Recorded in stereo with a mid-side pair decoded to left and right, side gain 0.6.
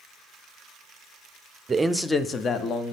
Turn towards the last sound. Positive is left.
turn(degrees=55)